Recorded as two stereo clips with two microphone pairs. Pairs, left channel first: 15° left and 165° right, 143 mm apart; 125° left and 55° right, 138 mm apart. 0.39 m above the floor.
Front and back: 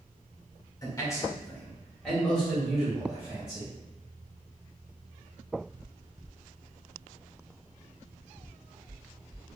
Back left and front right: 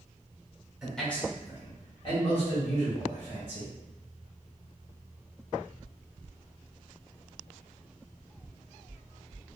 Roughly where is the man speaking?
Ahead left.